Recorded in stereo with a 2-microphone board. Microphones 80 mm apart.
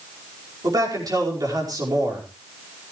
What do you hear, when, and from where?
0.6 s a man speaking: 50° right (ahead or behind), 5 m